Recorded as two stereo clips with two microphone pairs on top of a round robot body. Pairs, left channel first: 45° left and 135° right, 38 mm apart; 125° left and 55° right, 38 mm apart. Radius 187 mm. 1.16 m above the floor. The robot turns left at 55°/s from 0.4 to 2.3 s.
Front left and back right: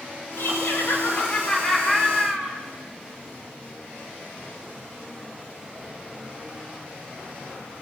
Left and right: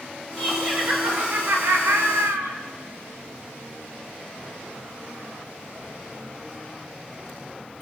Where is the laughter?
25° left, 6 m; by 2.5 s 80° right, 6 m.